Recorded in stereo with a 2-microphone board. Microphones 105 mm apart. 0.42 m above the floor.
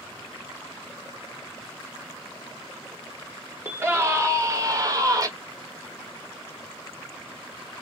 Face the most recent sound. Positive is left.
turn(degrees=-35)  # may be behind; listen again after turning